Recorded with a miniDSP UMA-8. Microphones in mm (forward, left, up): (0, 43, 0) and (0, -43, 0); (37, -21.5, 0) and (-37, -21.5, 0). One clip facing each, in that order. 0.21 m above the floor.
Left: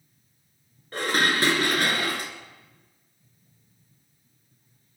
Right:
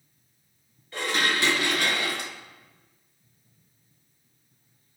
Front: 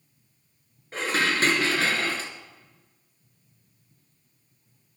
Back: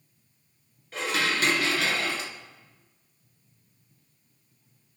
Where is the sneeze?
No sneeze in this recording.